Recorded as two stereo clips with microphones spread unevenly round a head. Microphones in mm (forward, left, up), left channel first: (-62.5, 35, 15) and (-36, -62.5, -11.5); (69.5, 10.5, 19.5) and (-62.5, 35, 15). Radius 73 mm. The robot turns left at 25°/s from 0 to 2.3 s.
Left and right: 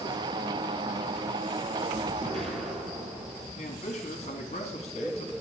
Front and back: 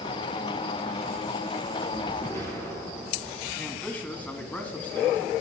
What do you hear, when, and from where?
2.2 s an explosion: 60° right, 1.6 m; by 3.5 s 65° right, 1.6 m
3.6 s a man speaking: 70° left, 1.6 m